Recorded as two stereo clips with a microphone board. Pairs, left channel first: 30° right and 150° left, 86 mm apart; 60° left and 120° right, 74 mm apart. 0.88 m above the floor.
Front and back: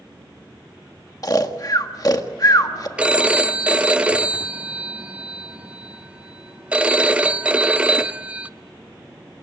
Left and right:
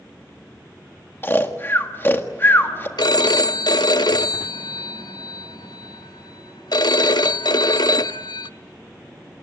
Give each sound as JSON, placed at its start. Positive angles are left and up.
{"t": 1.2, "sound": "snoring", "azimuth_deg": 5, "distance_m": 1.6}
{"t": 3.0, "sound": "a phone ringing", "azimuth_deg": 75, "distance_m": 0.7}